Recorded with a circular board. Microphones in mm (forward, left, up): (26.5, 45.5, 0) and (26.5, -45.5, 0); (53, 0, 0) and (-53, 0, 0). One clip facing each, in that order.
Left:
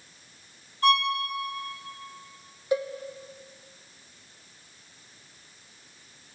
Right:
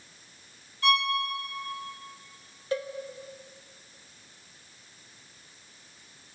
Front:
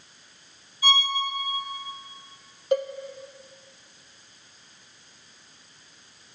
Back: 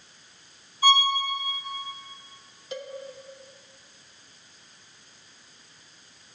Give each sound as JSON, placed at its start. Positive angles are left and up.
{"t": 0.8, "sound": "a violin", "azimuth_deg": 140, "distance_m": 3.5}
{"t": 2.7, "sound": "a cowbell", "azimuth_deg": 20, "distance_m": 0.8}